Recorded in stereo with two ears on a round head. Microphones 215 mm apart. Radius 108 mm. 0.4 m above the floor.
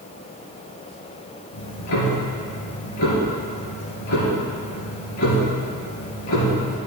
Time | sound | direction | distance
1.5 | ticking | 80° left | 3.5 m